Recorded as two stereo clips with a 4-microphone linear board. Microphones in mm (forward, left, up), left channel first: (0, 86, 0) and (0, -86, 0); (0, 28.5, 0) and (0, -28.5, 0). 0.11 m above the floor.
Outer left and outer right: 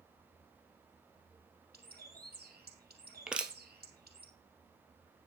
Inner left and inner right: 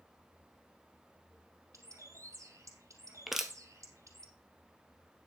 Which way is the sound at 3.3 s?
5° right (ahead or behind).